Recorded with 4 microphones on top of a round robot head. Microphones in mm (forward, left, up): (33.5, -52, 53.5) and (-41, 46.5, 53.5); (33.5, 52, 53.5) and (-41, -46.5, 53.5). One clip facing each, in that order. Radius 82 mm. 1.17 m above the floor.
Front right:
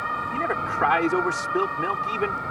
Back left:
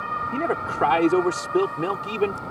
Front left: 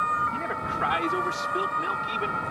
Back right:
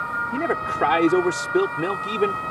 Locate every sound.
0.3 s a man speaking: 165° right